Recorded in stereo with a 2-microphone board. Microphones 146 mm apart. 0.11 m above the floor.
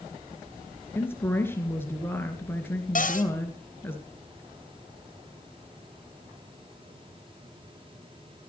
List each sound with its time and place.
0.9 s a woman speaking: 15° left (ahead or behind), 2 m
3.0 s a cupboard door: 60° left (ahead or behind), 1.5 m